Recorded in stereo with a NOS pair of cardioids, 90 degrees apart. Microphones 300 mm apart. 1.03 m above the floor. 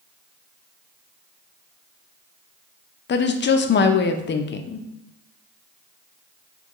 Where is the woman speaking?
40° left, 0.6 m.